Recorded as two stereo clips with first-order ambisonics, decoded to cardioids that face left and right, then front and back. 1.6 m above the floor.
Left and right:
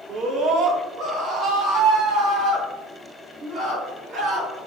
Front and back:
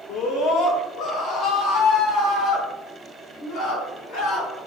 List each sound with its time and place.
0.1 s a scream: 40° right, 0.8 m; by 4.6 s 25° right, 5 m